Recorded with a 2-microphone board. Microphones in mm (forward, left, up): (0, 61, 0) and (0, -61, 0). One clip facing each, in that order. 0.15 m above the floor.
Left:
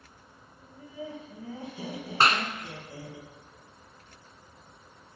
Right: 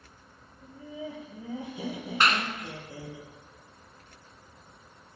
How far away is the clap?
About 1.2 m.